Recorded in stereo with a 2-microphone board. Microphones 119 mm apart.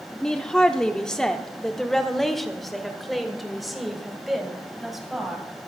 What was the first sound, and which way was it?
A woman speaking, 5° left (ahead or behind).